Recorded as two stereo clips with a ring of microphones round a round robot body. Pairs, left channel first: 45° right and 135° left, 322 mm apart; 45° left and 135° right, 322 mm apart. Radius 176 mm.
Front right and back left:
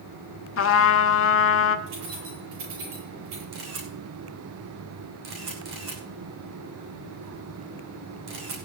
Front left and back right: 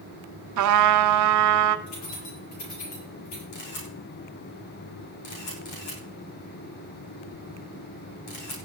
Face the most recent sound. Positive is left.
turn(degrees=80)